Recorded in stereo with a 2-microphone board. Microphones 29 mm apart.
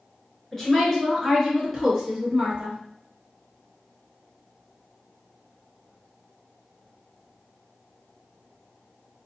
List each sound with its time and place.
0.5 s a woman speaking: 20° left (ahead or behind), 1.3 m; by 2.8 s 30° right (ahead or behind), 1.4 m